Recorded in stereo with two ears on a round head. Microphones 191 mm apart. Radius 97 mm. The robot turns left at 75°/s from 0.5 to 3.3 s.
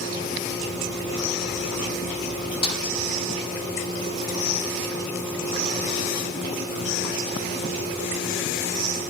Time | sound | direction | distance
2.6 | a snare drum | 25° left (ahead or behind) | 4.5 m